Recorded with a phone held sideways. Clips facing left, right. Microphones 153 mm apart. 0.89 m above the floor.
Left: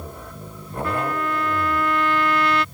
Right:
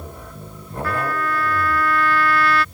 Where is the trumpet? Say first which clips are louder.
Right 1 dB; 20° left (ahead or behind).